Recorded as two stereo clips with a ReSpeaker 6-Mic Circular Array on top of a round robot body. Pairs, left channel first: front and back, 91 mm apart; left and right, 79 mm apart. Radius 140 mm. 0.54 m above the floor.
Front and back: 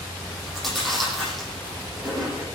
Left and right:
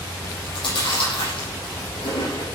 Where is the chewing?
90° left, 9.5 m.